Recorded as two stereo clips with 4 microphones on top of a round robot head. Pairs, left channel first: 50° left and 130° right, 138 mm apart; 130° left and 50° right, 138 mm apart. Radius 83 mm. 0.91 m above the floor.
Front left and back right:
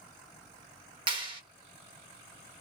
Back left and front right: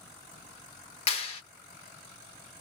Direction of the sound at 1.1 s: 175° left.